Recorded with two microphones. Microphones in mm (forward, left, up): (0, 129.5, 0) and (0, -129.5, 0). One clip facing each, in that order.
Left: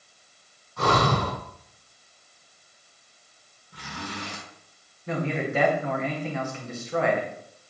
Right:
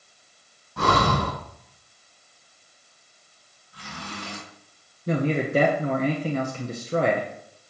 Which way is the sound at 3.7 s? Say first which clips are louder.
Left 2 dB; 80° left.